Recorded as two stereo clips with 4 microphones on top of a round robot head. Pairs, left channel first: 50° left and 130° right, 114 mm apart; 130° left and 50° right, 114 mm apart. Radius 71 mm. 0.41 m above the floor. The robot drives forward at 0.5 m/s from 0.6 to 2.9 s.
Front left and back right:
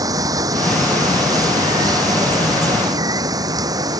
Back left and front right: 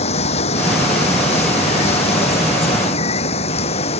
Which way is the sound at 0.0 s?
170° left.